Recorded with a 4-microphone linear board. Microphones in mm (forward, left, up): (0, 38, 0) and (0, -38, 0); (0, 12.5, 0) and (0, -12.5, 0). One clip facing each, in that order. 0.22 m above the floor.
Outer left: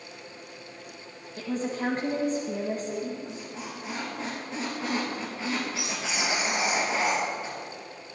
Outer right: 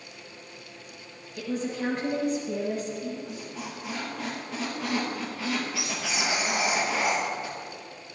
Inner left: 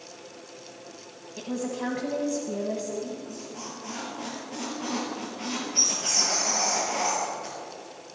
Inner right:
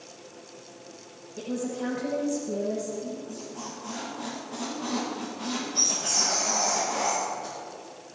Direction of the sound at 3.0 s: 30° left (ahead or behind).